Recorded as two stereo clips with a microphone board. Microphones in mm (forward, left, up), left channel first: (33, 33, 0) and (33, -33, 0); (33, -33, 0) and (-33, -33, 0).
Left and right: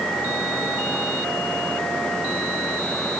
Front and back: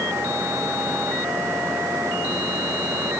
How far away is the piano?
No piano in this recording.